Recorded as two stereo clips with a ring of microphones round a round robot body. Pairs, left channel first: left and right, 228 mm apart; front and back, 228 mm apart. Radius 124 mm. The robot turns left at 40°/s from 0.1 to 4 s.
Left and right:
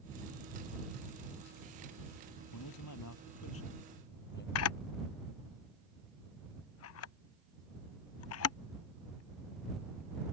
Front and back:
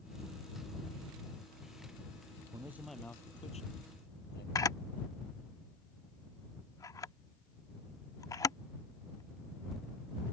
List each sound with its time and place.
2.5 s a man speaking: 105° left; by 4.5 s 45° left
4.5 s a camera shutter: 75° left